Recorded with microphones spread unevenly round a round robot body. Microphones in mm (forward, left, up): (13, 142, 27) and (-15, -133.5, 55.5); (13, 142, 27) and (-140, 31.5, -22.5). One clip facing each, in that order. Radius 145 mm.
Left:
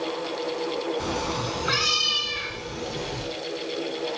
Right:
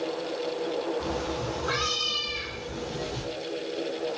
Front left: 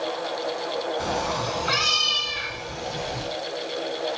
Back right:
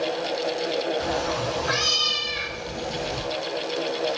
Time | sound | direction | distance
1.0 | a cat meowing | 95° left | 1.0 m